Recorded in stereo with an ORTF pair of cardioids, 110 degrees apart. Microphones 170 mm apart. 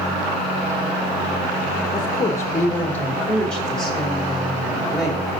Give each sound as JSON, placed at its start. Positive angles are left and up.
{"t": 1.9, "sound": "a woman speaking", "azimuth_deg": 25, "distance_m": 1.3}